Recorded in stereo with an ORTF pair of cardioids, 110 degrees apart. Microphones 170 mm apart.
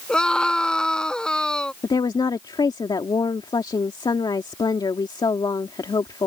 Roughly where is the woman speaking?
Ahead left.